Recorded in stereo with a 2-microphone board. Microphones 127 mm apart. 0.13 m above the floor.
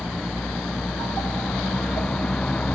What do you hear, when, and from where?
0.0 s a vehicle: 5° left (ahead or behind); by 2.8 s 10° left (ahead or behind)